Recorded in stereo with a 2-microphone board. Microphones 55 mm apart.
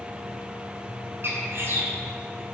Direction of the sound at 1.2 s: 45° right (ahead or behind).